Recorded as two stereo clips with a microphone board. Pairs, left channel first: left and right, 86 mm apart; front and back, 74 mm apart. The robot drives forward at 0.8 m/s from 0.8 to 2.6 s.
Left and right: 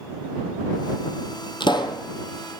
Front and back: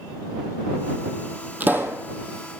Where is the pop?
115° left, 1.0 m; by 2.0 s 130° left, 1.2 m.